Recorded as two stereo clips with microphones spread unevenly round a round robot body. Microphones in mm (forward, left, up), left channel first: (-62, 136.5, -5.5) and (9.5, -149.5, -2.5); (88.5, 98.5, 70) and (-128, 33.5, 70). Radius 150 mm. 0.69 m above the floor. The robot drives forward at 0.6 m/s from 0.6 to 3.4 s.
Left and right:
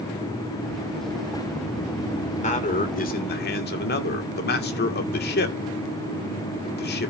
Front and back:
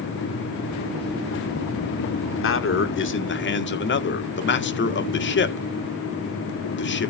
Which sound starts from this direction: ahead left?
A man speaking, at 2.2 s.